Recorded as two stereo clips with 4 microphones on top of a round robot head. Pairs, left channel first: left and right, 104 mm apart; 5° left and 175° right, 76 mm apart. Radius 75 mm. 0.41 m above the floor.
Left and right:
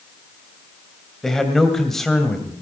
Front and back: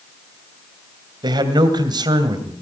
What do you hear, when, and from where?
1.2 s a man speaking: 175° left, 2 m